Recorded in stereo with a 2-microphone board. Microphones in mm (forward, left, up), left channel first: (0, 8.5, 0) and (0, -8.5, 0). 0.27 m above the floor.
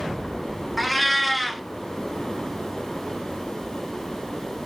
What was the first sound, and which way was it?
A cat meowing, 5° left (ahead or behind).